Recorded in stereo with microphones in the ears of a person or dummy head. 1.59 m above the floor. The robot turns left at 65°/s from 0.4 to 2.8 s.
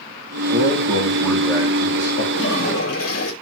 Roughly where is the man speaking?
Behind right.